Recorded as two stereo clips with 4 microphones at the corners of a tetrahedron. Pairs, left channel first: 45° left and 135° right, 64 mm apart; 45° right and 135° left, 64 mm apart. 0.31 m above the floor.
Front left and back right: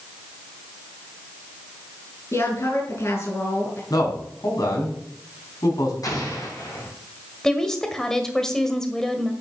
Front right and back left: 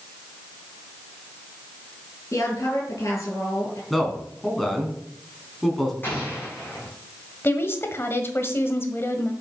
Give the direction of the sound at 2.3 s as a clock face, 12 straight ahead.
12 o'clock.